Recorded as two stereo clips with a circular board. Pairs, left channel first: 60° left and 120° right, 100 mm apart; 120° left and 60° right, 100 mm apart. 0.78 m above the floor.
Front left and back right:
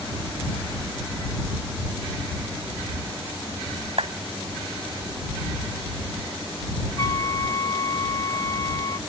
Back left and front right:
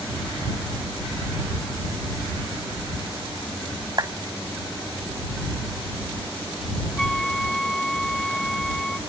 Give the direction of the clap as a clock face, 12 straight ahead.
4 o'clock.